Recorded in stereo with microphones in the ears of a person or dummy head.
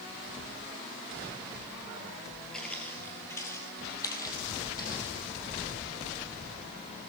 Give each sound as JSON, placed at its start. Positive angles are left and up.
{"t": 2.5, "sound": "footsteps", "side_deg": 5, "distance_m": 2.0}